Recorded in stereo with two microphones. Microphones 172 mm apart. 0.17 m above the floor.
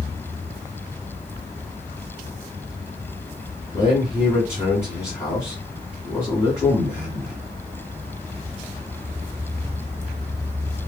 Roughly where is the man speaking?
Centre.